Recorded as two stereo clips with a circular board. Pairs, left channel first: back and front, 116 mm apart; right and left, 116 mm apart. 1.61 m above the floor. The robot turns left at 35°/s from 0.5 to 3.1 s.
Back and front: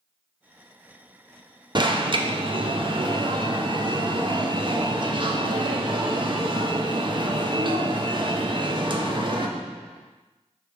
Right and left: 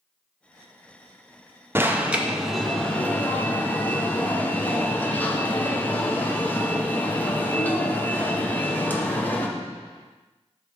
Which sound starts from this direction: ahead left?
An alarm, at 1.8 s.